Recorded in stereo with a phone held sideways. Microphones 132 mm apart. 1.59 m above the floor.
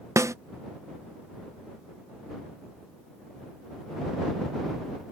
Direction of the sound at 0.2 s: 25° right (ahead or behind).